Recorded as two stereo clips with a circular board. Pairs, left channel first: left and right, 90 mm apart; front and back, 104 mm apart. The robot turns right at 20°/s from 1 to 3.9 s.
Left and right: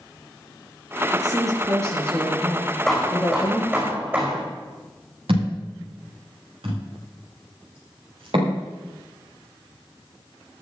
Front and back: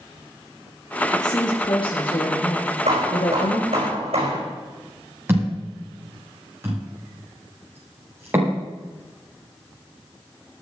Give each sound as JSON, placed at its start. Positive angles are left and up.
{"t": 1.1, "sound": "a woman speaking", "azimuth_deg": -45, "distance_m": 4.5}
{"t": 2.9, "sound": "hammering", "azimuth_deg": 180, "distance_m": 5.0}
{"t": 5.3, "sound": "a thud", "azimuth_deg": -110, "distance_m": 9.0}